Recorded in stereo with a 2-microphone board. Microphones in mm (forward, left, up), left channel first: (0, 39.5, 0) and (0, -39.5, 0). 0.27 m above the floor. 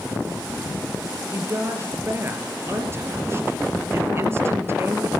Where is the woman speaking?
30° right (ahead or behind), 4.5 m.